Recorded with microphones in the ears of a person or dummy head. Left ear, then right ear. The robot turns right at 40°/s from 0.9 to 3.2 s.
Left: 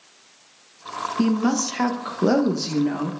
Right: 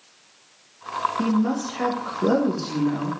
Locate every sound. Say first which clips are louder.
1.2 s a woman speaking: left 2 dB; 70° left, 1.1 m; by 3.1 s 145° left, 1.1 m